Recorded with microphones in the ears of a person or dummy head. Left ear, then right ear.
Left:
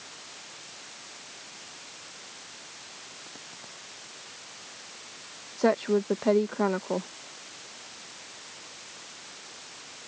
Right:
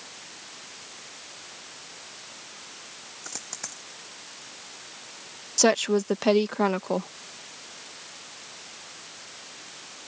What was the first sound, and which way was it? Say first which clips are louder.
A dropped coin: right 6 dB; 60° right (ahead or behind).